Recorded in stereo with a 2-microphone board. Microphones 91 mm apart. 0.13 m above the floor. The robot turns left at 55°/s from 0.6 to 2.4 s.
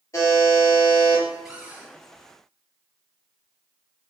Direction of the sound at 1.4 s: 5° right (ahead or behind).